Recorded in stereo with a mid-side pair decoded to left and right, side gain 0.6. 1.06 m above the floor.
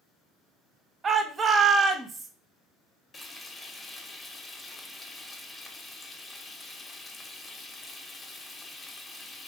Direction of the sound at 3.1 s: 15° left.